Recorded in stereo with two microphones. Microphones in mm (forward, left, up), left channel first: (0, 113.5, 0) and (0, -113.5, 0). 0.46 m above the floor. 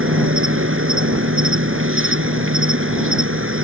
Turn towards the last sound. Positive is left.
turn(degrees=-65)  # may be behind; listen again after turning